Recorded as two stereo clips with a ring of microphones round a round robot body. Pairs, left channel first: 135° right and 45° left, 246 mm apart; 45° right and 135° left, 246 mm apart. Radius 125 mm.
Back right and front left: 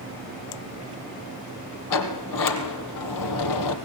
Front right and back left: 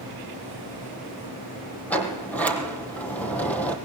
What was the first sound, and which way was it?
A sliding door, 130° right.